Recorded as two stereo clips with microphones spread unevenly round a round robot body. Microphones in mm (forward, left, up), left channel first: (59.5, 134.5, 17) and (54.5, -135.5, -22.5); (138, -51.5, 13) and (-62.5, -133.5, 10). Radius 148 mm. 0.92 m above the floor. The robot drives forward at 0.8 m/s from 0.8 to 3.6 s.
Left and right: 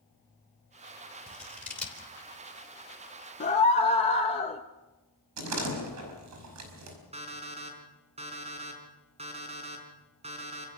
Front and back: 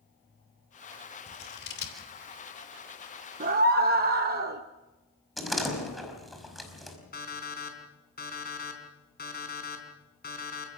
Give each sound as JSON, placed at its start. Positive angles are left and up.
{"t": 1.3, "sound": "scissors", "azimuth_deg": 0, "distance_m": 4.0}
{"t": 3.4, "sound": "a scream", "azimuth_deg": 155, "distance_m": 0.6}
{"t": 5.4, "sound": "a door slam", "azimuth_deg": -70, "distance_m": 5.0}
{"t": 7.1, "sound": "an alarm clock", "azimuth_deg": -25, "distance_m": 4.0}